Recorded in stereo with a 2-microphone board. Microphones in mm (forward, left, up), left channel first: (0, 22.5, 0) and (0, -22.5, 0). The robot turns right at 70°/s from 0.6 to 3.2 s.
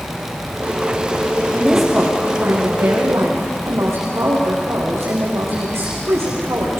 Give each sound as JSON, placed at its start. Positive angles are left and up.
{"t": 1.5, "sound": "a woman speaking", "azimuth_deg": 155, "distance_m": 8.0}